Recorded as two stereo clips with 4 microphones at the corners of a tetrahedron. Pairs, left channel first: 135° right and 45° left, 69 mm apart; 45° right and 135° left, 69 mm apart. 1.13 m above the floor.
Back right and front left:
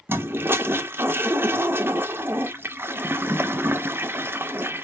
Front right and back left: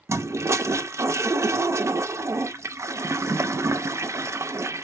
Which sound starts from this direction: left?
A toilet flushing, at 0.1 s.